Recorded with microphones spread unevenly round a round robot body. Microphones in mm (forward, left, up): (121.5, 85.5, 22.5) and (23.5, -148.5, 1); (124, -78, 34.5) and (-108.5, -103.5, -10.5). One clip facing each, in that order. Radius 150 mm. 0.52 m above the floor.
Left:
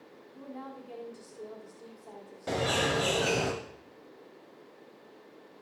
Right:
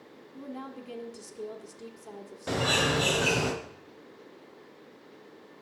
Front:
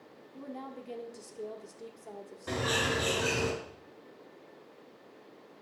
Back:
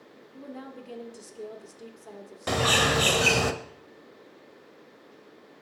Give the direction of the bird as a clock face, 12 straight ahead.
7 o'clock.